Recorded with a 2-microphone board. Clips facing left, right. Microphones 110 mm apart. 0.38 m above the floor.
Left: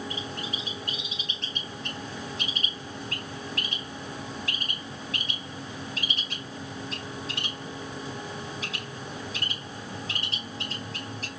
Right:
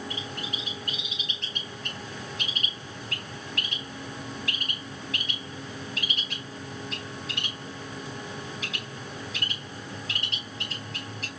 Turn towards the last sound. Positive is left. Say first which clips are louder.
# left 1 dB
turn(degrees=35)  # may be behind; listen again after turning